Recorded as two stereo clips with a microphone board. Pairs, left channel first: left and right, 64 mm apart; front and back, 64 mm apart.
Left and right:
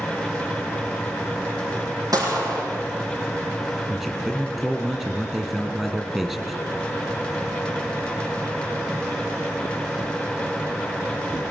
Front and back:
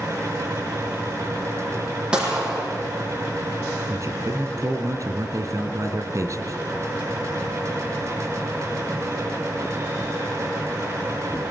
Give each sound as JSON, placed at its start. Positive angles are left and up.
{"t": 2.1, "sound": "a gunshot", "azimuth_deg": -105, "distance_m": 5.0}
{"t": 3.9, "sound": "a man speaking", "azimuth_deg": -170, "distance_m": 3.0}